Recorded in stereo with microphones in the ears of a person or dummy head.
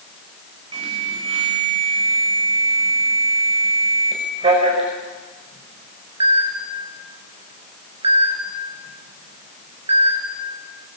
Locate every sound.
0.7 s an alarm: 35° right (ahead or behind), 5 m